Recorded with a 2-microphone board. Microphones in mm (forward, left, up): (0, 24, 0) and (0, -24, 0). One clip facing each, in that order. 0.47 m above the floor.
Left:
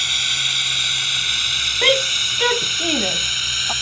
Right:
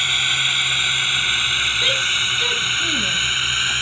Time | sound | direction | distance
0.0 | a drone | 15° right (ahead or behind) | ?
1.8 | a shout | 45° left (ahead or behind) | ?